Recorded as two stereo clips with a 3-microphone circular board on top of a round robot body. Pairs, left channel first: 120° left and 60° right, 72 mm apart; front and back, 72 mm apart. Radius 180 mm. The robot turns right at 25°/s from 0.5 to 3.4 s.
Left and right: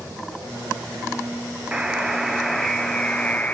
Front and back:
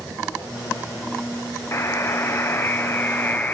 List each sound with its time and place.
1.7 s a buzzer: 10° left, 1.2 m; by 3.5 s 55° left, 1.2 m